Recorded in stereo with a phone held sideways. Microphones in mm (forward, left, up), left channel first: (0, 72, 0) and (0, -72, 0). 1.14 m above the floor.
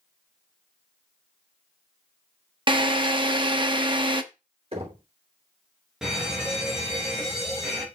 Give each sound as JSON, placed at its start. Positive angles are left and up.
{"t": 2.7, "sound": "a drill", "side_deg": -35, "distance_m": 0.9}
{"t": 4.7, "sound": "knocking", "side_deg": -45, "distance_m": 3.0}
{"t": 6.0, "sound": "a fire alarm", "side_deg": -5, "distance_m": 3.0}